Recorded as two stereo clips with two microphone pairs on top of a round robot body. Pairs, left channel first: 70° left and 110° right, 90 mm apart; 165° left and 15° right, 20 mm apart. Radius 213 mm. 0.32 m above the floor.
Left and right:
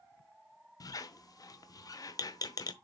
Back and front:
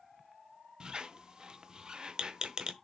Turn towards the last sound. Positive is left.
turn(degrees=30)